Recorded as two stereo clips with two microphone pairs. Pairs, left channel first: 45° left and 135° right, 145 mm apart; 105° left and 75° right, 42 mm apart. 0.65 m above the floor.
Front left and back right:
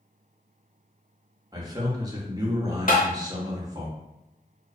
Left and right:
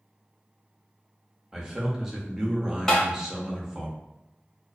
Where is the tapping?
25° left, 0.8 m.